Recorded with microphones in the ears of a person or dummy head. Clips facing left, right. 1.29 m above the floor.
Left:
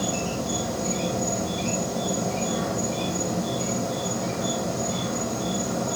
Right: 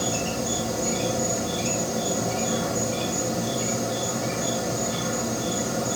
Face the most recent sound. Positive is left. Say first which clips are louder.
# even
turn(degrees=-10)  # may be behind; listen again after turning